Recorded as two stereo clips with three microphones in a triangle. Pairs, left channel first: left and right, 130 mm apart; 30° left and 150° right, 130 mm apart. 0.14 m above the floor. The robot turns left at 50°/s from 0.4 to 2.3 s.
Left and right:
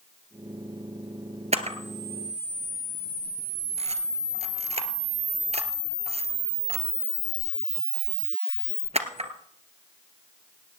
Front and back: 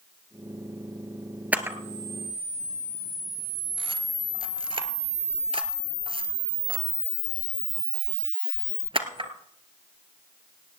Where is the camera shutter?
75° right, 1.4 m; by 9.3 s 110° right, 1.4 m.